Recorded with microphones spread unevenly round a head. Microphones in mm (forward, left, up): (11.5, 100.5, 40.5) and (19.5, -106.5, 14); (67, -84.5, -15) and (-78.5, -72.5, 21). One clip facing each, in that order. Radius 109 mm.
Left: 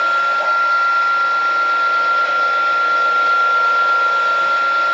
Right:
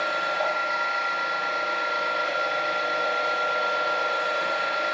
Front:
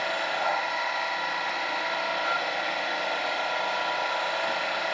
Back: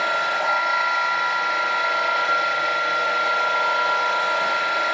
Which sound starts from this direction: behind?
A machine running, at 0.0 s.